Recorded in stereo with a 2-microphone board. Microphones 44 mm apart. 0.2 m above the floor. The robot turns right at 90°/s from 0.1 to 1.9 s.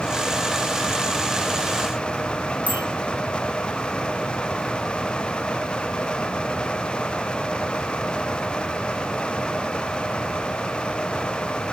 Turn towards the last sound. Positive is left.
turn(degrees=-35)  # may be behind; listen again after turning